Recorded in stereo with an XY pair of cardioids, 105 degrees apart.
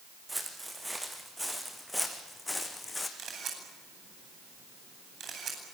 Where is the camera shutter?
55° right, 9.5 m.